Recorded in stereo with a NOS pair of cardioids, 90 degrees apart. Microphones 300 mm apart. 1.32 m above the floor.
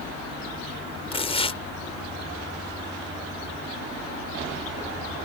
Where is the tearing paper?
20° left.